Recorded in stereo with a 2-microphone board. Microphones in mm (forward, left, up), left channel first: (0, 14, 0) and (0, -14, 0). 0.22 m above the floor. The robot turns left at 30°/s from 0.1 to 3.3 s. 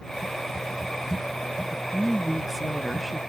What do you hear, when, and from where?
1.7 s a woman speaking: 15° right (ahead or behind); by 3.2 s 5° left (ahead or behind)